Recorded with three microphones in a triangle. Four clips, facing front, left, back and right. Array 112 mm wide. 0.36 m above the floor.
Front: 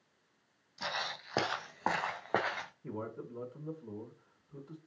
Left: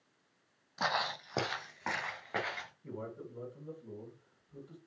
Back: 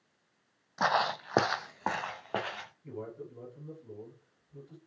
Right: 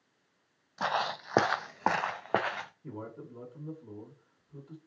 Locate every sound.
0.8 s footsteps: straight behind, 0.7 m; by 2.7 s 70° right, 1.7 m
2.8 s a man speaking: 25° right, 2.5 m